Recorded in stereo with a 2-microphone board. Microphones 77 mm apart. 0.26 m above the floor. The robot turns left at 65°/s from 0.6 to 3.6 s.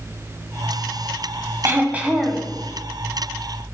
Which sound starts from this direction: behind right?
Throat clearing, at 1.6 s.